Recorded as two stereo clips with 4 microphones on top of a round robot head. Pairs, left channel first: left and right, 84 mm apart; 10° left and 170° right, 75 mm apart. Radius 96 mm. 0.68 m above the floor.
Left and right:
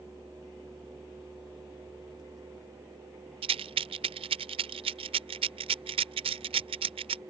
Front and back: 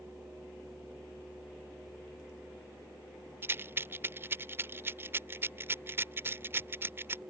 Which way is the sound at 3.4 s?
100° right.